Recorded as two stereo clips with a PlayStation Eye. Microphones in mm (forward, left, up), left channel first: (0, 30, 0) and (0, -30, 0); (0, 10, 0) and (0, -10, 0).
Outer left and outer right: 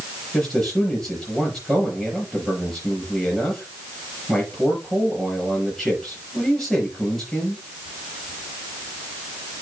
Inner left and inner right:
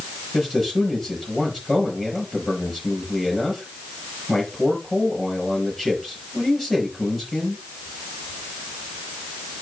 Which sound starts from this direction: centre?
A man speaking, at 0.3 s.